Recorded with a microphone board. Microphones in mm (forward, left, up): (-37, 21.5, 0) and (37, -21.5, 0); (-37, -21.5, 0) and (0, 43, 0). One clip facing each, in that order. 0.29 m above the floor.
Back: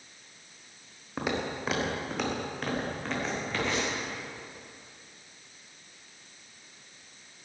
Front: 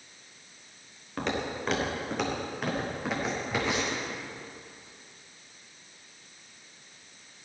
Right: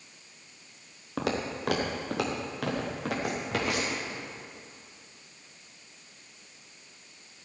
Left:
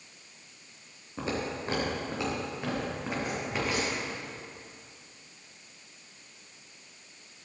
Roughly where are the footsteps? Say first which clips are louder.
Even, right 2 dB; behind right.